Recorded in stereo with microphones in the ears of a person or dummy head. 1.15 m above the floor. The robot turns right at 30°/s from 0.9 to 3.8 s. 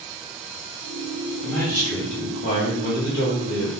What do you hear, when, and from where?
1.4 s a man speaking: 10° left, 1.7 m; by 3.7 s 80° left, 1.7 m